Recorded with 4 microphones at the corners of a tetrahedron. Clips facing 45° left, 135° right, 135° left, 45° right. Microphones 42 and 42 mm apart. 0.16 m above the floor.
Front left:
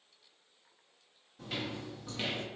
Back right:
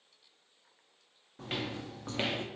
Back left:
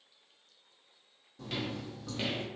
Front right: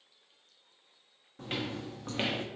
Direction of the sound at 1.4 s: 95° right.